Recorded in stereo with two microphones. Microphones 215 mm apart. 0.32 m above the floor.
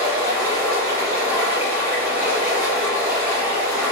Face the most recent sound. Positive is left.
turn(degrees=-10)  # may be behind; listen again after turning